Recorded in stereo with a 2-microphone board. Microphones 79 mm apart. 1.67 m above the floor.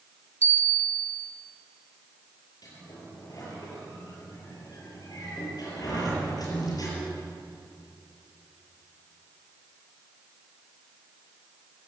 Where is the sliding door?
55° left (ahead or behind), 7 m.